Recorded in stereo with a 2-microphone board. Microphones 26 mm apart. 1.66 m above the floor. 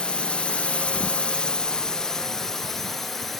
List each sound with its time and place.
0.0 s a drone: 40° left (ahead or behind); by 3.4 s 10° left (ahead or behind)